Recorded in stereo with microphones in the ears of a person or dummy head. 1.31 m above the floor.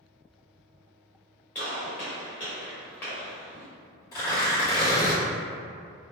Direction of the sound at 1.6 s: 10° left (ahead or behind).